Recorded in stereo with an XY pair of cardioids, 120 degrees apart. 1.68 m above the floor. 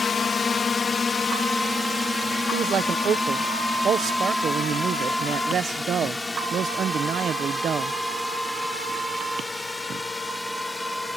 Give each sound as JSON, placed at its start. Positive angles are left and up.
{"t": 0.0, "sound": "a drone", "azimuth_deg": 25}
{"t": 2.5, "sound": "a man speaking", "azimuth_deg": -50}